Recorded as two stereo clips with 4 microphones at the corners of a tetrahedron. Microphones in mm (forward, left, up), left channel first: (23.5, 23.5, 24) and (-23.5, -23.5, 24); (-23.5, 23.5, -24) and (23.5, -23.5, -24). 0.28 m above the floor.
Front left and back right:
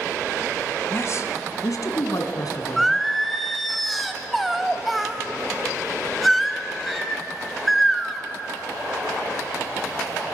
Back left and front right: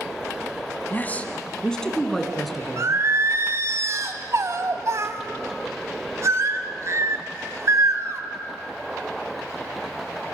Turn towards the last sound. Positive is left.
turn(degrees=-45)